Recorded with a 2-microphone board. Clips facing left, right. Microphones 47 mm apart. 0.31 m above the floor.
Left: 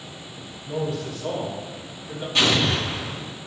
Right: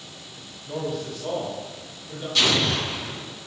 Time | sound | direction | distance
0.7 | a man speaking | 20° right (ahead or behind) | 1.2 m
2.4 | an explosion | 30° left (ahead or behind) | 1.3 m